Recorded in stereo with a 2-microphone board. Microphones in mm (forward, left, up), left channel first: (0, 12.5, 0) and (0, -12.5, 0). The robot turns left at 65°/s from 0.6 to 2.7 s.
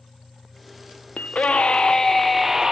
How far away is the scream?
About 0.7 m.